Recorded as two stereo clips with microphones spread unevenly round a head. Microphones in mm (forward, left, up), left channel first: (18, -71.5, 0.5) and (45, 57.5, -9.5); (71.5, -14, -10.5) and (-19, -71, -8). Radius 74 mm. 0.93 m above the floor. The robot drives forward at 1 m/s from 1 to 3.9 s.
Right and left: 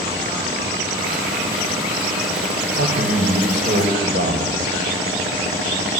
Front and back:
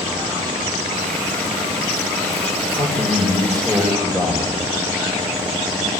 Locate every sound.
2.8 s a man speaking: 95° left, 4 m; by 4.6 s 110° left, 4 m